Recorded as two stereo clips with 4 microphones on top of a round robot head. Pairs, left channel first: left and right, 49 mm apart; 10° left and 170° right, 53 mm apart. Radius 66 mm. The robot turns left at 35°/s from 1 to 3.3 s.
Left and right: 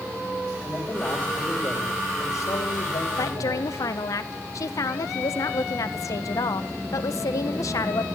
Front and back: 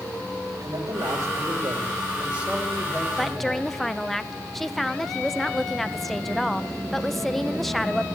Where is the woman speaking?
100° left, 1.4 m; by 8.1 s 95° left, 1.4 m.